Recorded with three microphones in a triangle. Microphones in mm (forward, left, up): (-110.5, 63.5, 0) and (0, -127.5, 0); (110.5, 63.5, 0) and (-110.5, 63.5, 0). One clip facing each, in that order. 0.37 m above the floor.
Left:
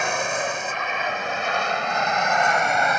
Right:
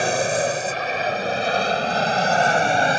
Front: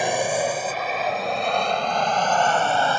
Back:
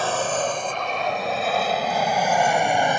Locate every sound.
0.0 s an aircraft: 65° right; by 3.0 s 110° right